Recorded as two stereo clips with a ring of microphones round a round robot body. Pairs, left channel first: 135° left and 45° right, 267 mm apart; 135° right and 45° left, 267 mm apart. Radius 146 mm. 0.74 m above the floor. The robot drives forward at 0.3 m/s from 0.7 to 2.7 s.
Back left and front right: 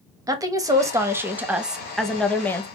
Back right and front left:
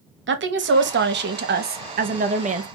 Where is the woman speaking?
25° left, 1.3 m; by 2.7 s 65° left, 1.0 m.